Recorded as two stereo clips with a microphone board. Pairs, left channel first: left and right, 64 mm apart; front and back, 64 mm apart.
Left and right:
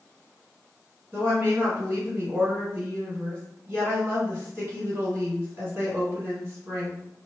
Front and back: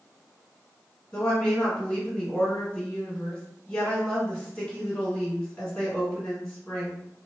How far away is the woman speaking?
About 1.8 m.